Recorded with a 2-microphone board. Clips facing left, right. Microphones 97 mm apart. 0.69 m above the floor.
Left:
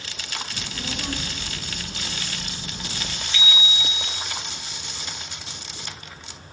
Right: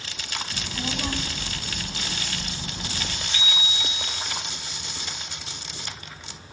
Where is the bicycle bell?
45° right (ahead or behind), 2.5 m.